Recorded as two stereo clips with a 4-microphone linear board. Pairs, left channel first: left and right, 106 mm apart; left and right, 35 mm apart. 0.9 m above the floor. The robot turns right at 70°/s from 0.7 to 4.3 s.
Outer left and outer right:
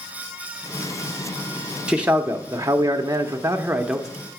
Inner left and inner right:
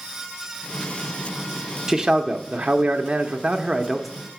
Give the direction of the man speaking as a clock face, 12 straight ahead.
5 o'clock.